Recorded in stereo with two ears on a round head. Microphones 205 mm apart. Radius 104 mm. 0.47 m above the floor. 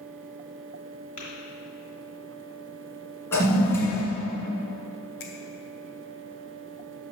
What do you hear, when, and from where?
1.2 s tapping: 35° left (ahead or behind), 2.5 m
3.3 s a toilet flushing: 15° left (ahead or behind), 1.9 m
5.2 s a finger snap: 45° left (ahead or behind), 1.1 m